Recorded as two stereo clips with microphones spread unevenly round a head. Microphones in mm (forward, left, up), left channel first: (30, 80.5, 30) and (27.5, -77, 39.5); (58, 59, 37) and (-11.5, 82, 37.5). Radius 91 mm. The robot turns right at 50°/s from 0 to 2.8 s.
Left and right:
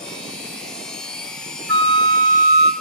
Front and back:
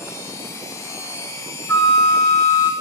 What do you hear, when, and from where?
1.7 s a flute: 95° right, 1.3 m; by 2.7 s 45° right, 1.3 m